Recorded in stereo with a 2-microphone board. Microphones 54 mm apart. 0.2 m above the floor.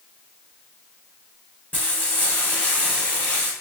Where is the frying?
35° left (ahead or behind), 2.5 m.